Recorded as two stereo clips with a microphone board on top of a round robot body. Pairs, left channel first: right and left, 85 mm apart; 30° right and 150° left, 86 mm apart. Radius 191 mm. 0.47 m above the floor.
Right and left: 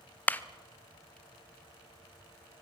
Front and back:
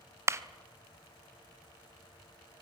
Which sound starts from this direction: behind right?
A clap, at 0.3 s.